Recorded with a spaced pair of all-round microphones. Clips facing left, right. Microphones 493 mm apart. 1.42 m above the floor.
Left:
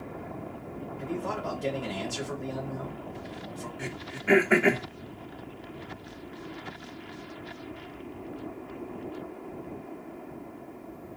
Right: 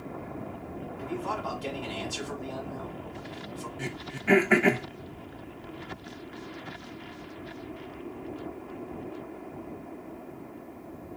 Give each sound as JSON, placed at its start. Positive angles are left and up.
{"t": 1.0, "sound": "a man speaking", "side_deg": 65, "distance_m": 2.0}
{"t": 3.8, "sound": "throat clearing", "side_deg": -15, "distance_m": 0.8}